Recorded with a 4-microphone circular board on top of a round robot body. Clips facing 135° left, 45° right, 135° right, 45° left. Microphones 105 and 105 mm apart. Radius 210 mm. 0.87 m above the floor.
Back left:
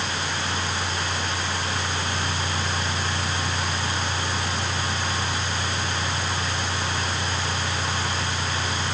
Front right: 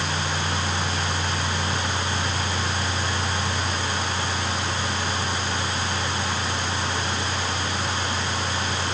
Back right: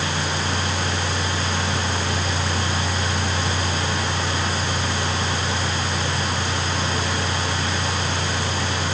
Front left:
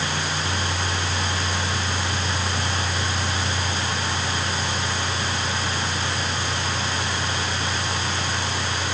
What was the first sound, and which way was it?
Only background noise.